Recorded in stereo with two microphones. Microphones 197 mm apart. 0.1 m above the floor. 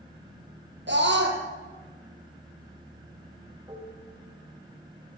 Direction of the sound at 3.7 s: 25° right (ahead or behind).